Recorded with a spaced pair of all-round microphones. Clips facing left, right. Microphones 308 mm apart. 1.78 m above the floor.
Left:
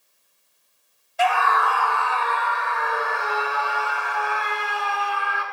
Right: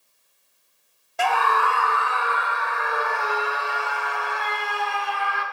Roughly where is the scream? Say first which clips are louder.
Left 1 dB; right.